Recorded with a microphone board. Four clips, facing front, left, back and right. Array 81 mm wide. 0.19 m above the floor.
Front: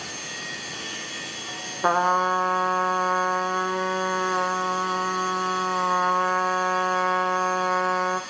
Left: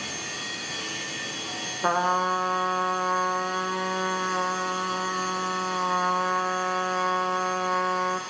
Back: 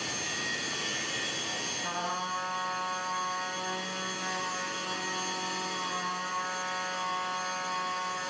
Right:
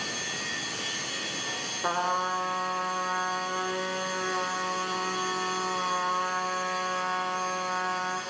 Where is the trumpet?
15° left, 3 m.